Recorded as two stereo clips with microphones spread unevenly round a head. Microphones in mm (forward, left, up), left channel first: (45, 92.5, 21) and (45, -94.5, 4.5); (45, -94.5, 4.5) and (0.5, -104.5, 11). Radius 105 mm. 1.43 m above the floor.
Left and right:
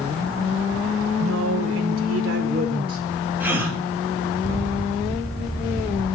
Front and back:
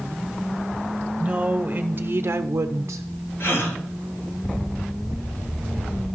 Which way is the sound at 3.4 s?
10° right.